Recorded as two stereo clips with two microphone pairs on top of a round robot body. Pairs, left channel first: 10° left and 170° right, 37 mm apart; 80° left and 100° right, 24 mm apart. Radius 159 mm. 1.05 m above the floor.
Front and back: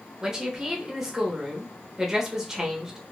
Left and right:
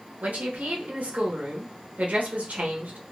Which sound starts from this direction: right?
A woman speaking, at 0.2 s.